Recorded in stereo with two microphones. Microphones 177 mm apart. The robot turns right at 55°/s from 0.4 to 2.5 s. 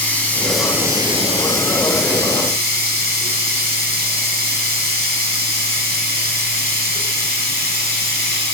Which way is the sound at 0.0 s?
170° left.